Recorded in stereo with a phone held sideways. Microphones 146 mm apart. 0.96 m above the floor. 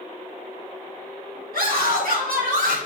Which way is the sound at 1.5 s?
85° right.